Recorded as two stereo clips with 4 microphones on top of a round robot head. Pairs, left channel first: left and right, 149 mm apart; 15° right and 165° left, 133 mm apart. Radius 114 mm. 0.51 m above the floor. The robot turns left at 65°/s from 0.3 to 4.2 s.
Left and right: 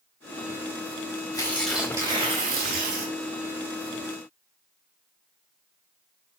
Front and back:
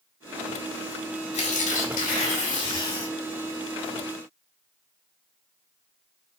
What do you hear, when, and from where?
1.3 s tearing paper: 25° left, 4.5 m; by 3.1 s 95° right, 4.5 m